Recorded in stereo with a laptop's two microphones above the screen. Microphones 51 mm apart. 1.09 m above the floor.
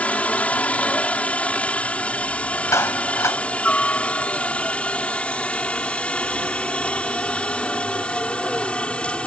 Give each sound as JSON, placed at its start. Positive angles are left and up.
{"t": 0.0, "sound": "a helicopter", "side_deg": 25}
{"t": 2.7, "sound": "a clap", "side_deg": 70}